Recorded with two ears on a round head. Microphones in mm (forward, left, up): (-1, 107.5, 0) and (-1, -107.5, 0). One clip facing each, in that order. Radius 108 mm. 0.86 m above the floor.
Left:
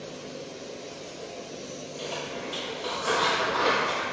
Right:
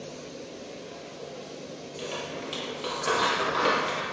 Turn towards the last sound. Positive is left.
turn(degrees=-35)  # may be behind; listen again after turning